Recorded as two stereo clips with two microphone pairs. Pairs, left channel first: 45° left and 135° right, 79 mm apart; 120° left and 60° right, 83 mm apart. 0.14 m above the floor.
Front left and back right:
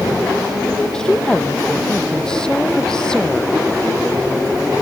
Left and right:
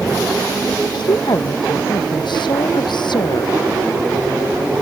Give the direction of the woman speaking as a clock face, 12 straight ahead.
8 o'clock.